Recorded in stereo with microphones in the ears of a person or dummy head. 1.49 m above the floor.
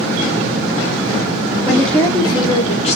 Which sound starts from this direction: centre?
A woman speaking, at 1.7 s.